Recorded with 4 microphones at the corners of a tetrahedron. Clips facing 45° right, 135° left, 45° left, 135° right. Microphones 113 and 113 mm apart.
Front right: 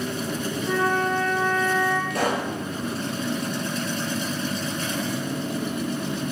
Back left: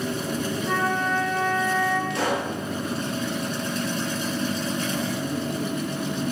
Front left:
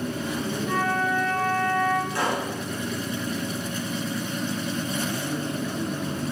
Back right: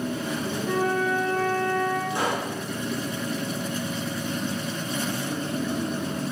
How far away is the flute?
About 1.5 m.